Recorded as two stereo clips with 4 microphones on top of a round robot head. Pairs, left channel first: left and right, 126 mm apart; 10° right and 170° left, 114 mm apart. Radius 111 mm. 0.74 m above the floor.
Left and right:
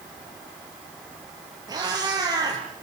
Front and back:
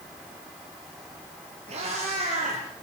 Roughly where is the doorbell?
I don't hear a doorbell.